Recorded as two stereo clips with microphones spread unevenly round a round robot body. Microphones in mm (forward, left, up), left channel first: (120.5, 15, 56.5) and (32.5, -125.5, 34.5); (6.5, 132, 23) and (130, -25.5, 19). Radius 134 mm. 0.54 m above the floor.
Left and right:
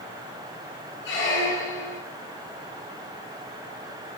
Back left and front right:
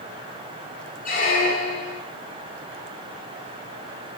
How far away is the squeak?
About 1.2 m.